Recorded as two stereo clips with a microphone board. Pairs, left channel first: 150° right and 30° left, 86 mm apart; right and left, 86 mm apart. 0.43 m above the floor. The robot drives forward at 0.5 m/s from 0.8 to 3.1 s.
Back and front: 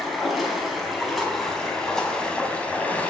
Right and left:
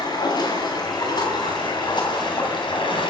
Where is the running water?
60° right, 3.5 m; by 3.1 s 75° right, 3 m.